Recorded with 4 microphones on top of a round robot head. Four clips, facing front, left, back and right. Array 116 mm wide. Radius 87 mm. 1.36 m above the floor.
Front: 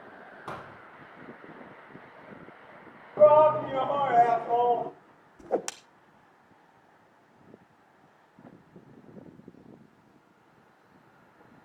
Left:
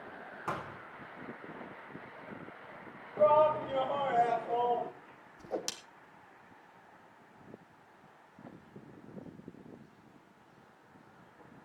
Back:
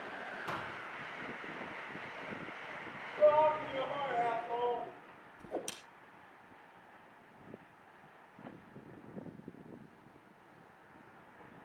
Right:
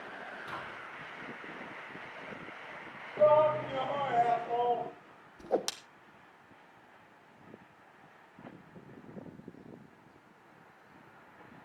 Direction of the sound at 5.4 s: 25° right.